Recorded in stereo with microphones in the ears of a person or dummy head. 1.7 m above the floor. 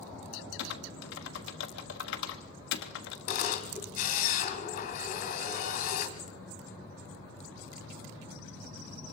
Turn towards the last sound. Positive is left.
turn(degrees=45)  # may be behind; listen again after turning